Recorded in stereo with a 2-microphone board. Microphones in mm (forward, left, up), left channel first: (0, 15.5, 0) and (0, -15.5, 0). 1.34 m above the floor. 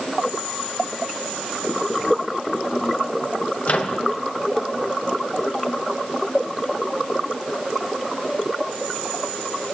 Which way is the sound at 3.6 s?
45° left (ahead or behind).